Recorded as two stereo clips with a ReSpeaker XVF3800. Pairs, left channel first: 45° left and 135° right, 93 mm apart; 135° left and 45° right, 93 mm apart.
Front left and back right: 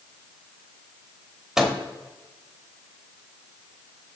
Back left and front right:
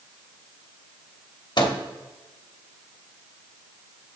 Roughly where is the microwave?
Behind left.